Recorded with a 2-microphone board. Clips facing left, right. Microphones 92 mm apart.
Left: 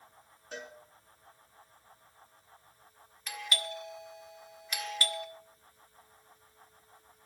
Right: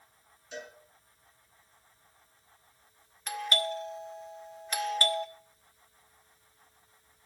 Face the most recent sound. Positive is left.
turn(degrees=-40)  # may be behind; listen again after turning